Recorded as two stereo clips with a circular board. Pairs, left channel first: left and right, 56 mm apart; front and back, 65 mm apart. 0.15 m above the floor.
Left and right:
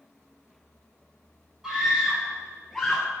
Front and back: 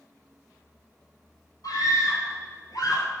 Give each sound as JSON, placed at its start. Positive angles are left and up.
{"t": 1.6, "sound": "a scream", "azimuth_deg": -10, "distance_m": 2.5}